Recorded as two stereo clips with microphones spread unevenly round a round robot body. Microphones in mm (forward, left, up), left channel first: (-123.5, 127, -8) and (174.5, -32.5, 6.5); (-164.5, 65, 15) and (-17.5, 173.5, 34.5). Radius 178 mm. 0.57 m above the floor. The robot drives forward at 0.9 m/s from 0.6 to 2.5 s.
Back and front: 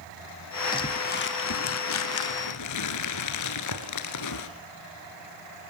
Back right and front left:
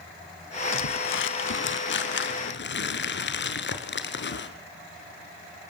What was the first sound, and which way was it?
Crumpling, 130° right.